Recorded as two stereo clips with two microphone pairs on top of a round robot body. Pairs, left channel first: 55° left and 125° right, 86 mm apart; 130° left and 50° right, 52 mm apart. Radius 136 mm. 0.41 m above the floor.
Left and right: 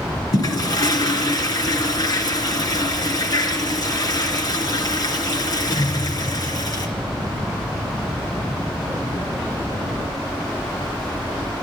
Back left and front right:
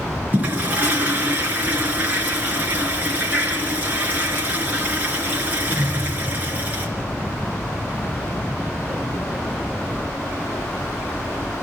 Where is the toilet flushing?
15° left, 3.5 m.